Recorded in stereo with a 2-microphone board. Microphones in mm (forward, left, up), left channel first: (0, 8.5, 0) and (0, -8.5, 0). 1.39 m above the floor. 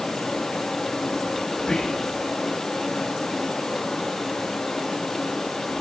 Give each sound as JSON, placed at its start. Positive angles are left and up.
{"t": 0.0, "sound": "running water", "side_deg": 50, "distance_m": 2.5}
{"t": 1.6, "sound": "whispering", "side_deg": 55, "distance_m": 1.0}